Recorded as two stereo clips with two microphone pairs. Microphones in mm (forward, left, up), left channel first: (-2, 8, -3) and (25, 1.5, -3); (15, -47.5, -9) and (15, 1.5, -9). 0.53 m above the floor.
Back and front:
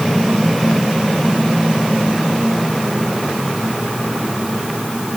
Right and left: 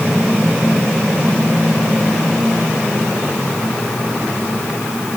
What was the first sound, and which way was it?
Only background noise.